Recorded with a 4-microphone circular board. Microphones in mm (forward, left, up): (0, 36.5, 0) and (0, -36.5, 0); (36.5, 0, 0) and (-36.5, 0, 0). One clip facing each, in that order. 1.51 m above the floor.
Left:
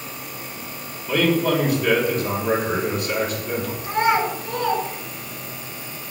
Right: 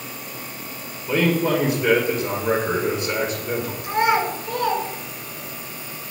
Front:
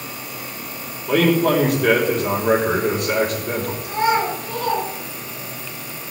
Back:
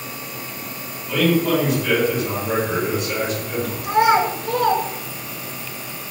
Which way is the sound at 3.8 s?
165° right.